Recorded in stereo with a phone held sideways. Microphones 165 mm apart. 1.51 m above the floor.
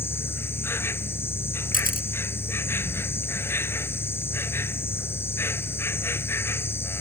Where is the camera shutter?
55° left (ahead or behind).